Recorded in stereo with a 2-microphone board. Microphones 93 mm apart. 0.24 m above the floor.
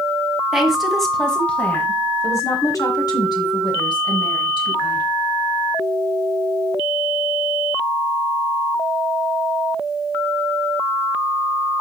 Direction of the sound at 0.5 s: 5° right (ahead or behind).